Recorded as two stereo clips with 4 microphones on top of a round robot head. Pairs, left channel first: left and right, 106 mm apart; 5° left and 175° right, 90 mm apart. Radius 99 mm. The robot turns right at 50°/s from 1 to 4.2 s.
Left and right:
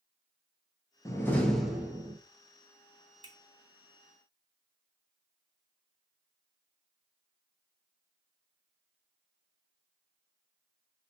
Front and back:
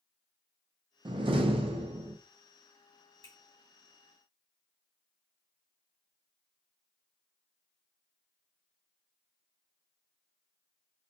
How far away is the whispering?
I don't hear whispering.